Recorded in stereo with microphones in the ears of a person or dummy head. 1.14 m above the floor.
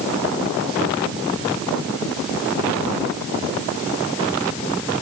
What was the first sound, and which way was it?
Only background noise.